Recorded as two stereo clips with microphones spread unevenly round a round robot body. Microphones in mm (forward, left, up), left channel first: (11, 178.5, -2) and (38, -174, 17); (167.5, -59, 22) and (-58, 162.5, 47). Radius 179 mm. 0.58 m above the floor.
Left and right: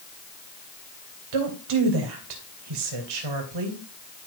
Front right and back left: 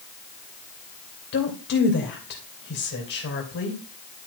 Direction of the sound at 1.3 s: 100° right.